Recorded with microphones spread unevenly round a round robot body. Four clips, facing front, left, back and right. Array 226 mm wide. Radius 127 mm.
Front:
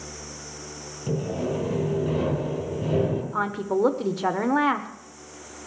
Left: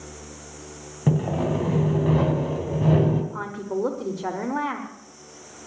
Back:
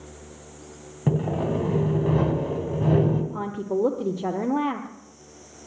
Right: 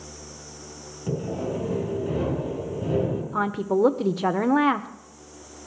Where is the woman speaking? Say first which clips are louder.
Right 5 dB, front 2 dB; 90° right, 1.0 m.